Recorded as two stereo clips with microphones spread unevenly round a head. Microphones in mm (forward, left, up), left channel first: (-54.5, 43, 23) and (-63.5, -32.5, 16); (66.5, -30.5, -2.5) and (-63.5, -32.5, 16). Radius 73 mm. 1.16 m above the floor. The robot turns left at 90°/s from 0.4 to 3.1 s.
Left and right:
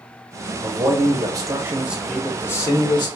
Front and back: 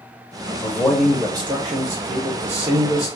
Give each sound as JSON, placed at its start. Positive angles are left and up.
{"t": 0.6, "sound": "a man speaking", "azimuth_deg": -45, "distance_m": 0.8}